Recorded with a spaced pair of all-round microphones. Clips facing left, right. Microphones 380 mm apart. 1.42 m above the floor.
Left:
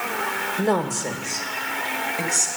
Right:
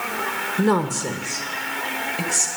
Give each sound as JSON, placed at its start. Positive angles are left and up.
{"t": 0.6, "sound": "a woman speaking", "side_deg": -20, "distance_m": 1.1}